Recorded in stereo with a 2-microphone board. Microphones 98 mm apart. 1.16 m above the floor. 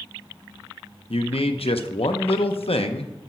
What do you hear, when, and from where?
1.1 s a man speaking: 80° left, 0.6 m